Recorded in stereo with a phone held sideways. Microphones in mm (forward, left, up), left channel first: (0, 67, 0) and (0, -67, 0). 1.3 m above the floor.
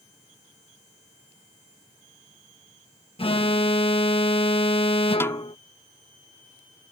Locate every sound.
3.2 s an alarm: 45° left (ahead or behind)
5.2 s a snare drum: 20° left (ahead or behind)